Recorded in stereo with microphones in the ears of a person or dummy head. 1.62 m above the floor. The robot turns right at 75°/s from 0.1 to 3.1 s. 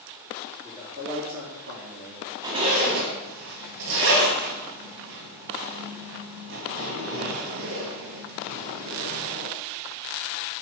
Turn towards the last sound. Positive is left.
turn(degrees=-75)  # may be behind; listen again after turning